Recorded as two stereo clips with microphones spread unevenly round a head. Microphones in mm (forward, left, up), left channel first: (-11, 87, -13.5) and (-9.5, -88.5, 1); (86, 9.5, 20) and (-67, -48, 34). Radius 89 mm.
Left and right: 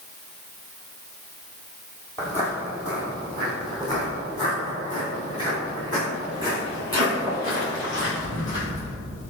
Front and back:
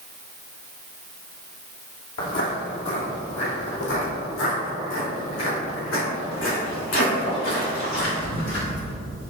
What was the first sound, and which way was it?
Footsteps, 10° left.